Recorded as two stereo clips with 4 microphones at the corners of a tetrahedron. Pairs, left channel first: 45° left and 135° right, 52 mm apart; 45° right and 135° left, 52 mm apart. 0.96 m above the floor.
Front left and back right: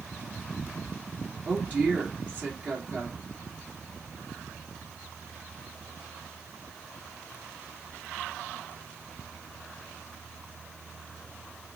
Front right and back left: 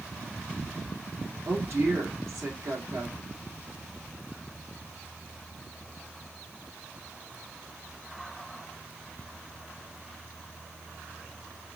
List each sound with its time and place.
1.4 s a woman speaking: 160° left, 1.6 m